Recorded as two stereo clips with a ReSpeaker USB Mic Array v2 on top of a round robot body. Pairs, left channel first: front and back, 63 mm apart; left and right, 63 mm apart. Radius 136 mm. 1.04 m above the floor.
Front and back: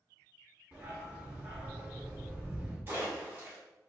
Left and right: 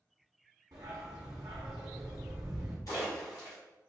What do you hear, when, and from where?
0.7 s a dog barking: 115° right, 0.7 m
2.9 s a splash: 120° left, 1.4 m